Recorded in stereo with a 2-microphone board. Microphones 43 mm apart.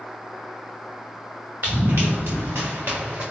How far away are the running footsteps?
About 1.7 m.